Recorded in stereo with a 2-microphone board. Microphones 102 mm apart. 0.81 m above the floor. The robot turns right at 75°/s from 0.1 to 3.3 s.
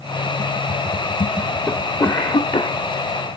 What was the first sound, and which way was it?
A cough, 15° left.